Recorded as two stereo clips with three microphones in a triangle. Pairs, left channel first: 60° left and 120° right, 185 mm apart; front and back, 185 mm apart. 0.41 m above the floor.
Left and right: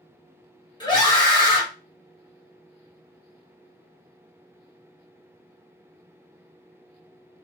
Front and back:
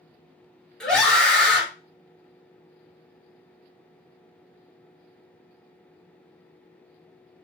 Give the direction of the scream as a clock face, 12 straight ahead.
9 o'clock.